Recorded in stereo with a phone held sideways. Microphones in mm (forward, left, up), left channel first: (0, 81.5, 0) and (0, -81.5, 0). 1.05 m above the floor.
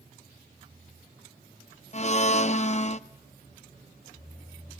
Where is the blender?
45° left (ahead or behind), 0.5 m.